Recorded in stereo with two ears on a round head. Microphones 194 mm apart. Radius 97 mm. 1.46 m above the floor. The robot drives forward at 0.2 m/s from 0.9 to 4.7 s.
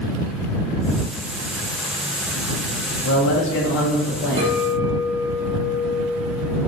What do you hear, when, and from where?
3.0 s a man speaking: 65° left (ahead or behind), 0.8 m; by 4.6 s 50° left (ahead or behind), 0.9 m
4.4 s a clink: 20° right (ahead or behind), 0.6 m; by 6.6 s 25° right (ahead or behind), 0.6 m